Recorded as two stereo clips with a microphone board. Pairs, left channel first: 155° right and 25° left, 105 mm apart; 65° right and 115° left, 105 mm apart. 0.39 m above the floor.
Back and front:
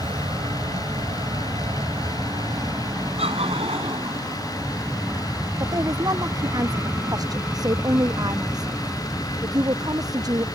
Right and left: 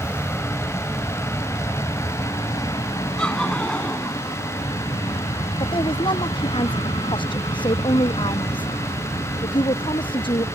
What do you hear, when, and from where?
0.0 s an aircraft: 5° left; by 10.6 s 55° right
3.2 s laughter: 15° left
5.6 s a woman speaking: 30° right